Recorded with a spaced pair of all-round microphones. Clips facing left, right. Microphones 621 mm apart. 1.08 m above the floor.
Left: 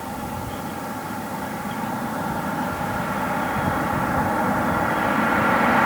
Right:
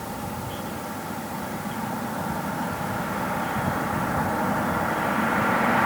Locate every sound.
Only background noise.